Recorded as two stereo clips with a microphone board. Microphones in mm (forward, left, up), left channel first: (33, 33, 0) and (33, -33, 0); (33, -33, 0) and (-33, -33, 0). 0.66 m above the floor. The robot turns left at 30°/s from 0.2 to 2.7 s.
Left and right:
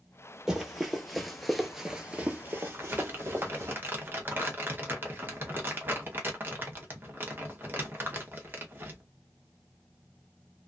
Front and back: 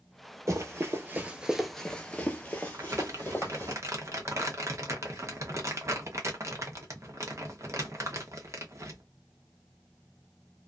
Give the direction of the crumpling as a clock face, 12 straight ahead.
5 o'clock.